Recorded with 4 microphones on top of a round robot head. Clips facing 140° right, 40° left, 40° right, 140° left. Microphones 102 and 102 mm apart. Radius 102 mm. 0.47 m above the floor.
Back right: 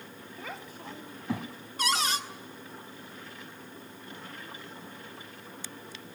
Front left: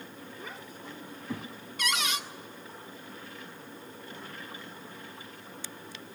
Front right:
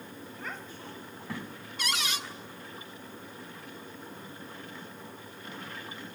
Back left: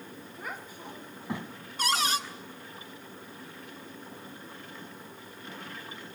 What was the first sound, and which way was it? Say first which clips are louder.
A child speaking: back right 4 dB, back left 1 dB; 140° right.